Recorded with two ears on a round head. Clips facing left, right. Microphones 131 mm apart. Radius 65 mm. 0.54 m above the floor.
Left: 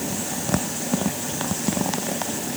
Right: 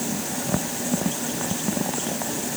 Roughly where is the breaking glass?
No breaking glass in this recording.